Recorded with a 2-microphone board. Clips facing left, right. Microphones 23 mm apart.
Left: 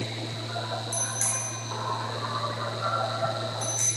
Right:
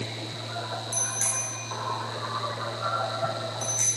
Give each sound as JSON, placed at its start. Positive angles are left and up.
{"t": 0.9, "sound": "a bicycle bell", "side_deg": -15, "distance_m": 9.0}